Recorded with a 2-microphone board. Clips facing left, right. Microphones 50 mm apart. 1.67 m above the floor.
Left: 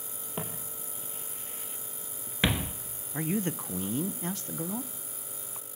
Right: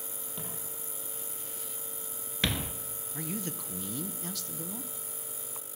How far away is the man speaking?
About 0.8 m.